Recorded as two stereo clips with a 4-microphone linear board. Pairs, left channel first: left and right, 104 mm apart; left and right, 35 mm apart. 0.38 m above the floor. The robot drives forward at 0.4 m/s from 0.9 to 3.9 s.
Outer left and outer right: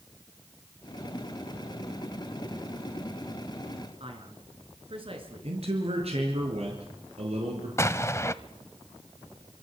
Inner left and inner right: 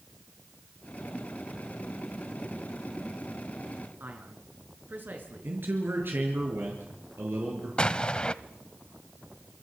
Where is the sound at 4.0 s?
60° right (ahead or behind), 5 m.